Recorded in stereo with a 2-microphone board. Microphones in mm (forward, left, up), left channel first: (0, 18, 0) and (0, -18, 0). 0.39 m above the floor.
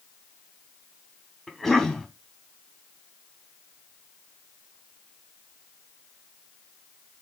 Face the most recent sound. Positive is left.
turn(degrees=10)  # may be behind; listen again after turning